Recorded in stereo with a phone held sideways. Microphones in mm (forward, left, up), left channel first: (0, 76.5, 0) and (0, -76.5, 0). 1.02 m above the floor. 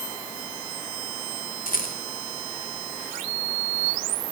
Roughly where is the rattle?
Left.